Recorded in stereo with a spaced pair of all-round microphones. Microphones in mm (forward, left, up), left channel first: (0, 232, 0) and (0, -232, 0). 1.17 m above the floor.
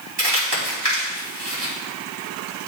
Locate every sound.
0.2 s crumpling: 55° right (ahead or behind), 2.5 m